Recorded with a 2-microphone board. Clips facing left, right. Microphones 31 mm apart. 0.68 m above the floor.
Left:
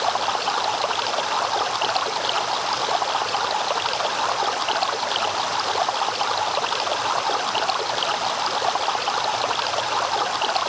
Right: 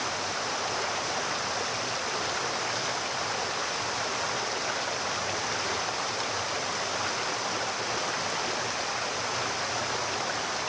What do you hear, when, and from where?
0.0 s running water: 55° left (ahead or behind)